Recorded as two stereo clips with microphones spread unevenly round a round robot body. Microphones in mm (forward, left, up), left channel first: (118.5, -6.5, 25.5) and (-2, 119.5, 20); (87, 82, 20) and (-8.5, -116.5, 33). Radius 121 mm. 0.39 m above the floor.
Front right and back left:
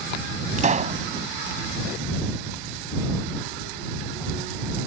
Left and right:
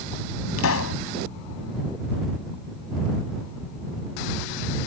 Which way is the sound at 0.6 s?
90° left.